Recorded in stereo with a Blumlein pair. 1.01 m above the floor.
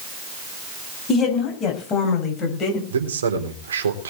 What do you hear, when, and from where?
1.1 s a woman speaking: 25° left, 7.5 m; by 2.8 s 30° left, 6 m
2.9 s a man speaking: 70° right, 3.5 m